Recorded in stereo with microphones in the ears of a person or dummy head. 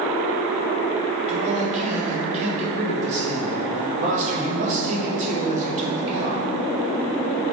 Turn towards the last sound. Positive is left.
turn(degrees=-35)  # may be behind; listen again after turning